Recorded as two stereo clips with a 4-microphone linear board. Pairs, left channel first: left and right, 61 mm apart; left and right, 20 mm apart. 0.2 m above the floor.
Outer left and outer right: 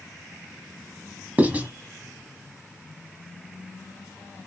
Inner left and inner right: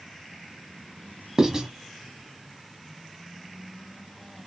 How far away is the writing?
About 1.2 m.